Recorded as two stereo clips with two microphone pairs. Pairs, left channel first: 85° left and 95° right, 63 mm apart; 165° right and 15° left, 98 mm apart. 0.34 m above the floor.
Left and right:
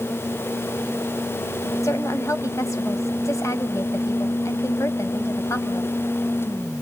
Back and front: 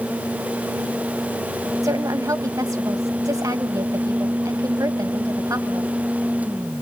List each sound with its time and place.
1.8 s a woman speaking: 65° left, 1.7 m